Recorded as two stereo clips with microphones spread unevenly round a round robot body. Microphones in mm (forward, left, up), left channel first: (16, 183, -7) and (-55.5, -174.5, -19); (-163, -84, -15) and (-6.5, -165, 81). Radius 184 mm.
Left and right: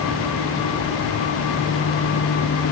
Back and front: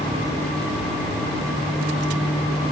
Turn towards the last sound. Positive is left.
No sound to turn to.